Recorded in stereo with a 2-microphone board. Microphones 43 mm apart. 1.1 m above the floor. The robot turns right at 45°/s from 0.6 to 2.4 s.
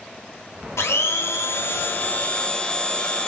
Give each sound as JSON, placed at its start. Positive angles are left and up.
{"t": 0.8, "sound": "a blender", "azimuth_deg": 85, "distance_m": 0.6}